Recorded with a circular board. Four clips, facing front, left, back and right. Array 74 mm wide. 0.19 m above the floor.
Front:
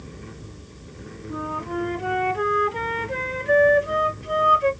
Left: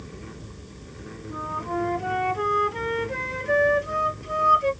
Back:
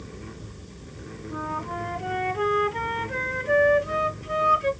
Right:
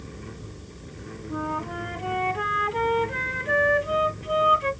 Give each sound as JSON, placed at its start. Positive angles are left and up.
{"t": 1.3, "sound": "a flute", "azimuth_deg": -75, "distance_m": 1.6}